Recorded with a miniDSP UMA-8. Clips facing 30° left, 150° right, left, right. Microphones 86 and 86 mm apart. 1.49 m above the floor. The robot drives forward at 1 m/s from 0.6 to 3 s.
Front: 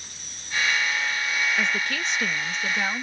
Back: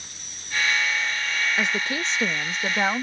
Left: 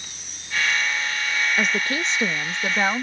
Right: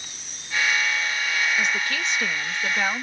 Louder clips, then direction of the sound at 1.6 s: Back 1 dB, left 2 dB; 140° left.